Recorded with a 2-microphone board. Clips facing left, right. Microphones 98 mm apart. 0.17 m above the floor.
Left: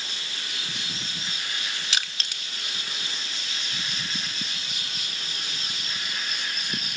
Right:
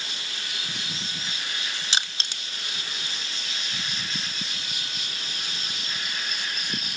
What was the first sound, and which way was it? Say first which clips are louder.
Crushing: right 2 dB; 30° right (ahead or behind).